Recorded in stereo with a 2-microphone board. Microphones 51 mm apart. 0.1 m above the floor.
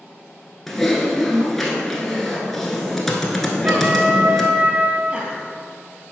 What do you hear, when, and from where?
0.7 s typing on a keyboard: 5° left (ahead or behind), 1.1 m
3.6 s a trumpet: 35° right (ahead or behind), 0.6 m
5.1 s laughter: 25° right (ahead or behind), 2 m